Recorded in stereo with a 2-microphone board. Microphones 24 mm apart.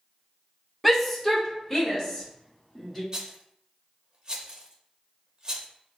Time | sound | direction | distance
0.8 | a shout | centre (ahead or behind) | 0.7 m
3.1 | a rattle | 30° right (ahead or behind) | 0.8 m